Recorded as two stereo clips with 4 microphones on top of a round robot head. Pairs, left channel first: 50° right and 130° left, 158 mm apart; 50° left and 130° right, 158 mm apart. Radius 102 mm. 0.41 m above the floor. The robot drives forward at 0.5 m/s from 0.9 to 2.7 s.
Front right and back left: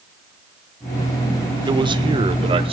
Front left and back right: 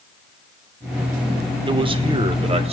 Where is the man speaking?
175° right, 1.1 m; by 2.7 s straight behind, 1.5 m.